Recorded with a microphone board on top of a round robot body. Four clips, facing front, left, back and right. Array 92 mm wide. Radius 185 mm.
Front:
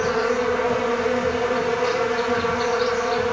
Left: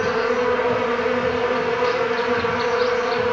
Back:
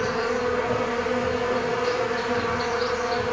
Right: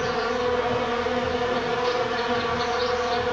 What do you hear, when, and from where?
0.0 s an insect: 65° left, 3.5 m